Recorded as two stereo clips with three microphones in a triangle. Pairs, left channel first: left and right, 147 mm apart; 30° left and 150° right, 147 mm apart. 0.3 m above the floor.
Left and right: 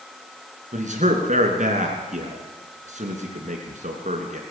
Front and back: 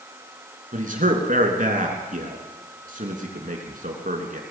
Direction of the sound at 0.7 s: 125° right.